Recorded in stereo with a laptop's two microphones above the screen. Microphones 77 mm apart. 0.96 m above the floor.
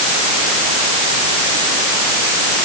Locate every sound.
Only background noise.